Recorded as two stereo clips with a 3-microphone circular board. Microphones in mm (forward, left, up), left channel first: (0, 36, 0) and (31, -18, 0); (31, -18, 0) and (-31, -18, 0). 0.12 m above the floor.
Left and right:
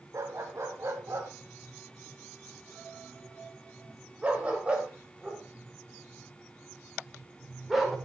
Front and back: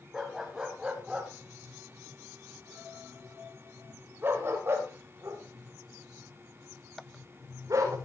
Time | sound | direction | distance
0.1 | a dog barking | 95° right | 5 m